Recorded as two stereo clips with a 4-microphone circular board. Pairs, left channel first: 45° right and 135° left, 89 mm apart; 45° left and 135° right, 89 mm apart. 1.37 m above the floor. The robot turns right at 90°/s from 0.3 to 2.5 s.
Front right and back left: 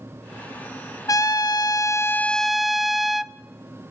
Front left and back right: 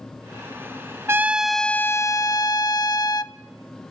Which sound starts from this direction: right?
A trumpet, at 1.1 s.